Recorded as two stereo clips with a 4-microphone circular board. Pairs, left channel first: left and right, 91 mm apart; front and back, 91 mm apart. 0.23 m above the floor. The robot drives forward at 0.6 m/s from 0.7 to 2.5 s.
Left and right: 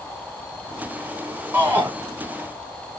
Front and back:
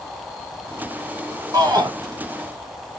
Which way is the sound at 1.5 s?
150° right.